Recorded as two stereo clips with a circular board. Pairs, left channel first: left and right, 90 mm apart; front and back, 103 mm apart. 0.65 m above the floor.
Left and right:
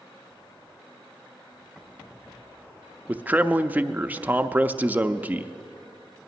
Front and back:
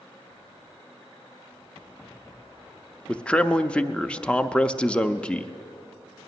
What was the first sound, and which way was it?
A man speaking, 60° right.